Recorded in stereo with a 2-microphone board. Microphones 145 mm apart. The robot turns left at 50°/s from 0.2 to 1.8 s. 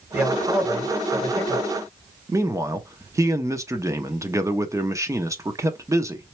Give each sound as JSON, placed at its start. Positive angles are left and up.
{"t": 0.1, "sound": "a man speaking", "azimuth_deg": -15, "distance_m": 2.0}
{"t": 2.3, "sound": "a man speaking", "side_deg": -20, "distance_m": 0.6}